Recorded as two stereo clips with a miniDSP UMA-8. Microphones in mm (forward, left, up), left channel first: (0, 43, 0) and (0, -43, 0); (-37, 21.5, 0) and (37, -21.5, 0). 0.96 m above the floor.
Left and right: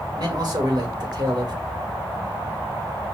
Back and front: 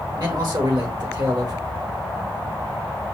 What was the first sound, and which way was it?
A man speaking, 60° right.